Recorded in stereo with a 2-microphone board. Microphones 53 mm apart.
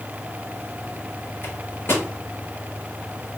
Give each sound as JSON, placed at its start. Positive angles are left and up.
{"t": 1.4, "sound": "a microwave", "side_deg": 50, "distance_m": 2.5}